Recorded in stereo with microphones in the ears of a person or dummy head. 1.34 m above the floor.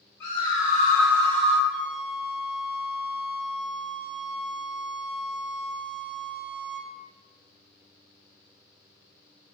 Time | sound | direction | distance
0.2 | a scream | 55° left (ahead or behind) | 1.2 m
1.7 | a flute | 55° right (ahead or behind) | 1.6 m